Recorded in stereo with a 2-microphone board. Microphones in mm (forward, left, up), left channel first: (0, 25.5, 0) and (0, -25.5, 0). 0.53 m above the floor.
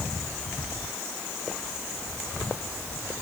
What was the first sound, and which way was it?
Only background noise.